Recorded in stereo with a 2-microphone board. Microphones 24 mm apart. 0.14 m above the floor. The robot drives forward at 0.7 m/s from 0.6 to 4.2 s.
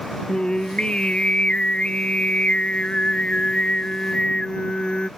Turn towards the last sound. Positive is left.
turn(degrees=40)  # may be behind; listen again after turning